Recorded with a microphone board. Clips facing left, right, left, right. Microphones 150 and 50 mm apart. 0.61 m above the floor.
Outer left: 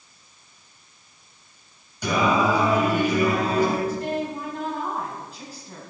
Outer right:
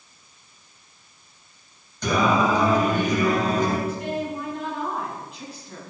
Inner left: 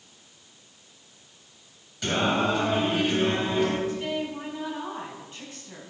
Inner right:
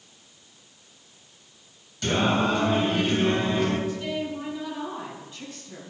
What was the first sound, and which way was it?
Singing, 10° left (ahead or behind).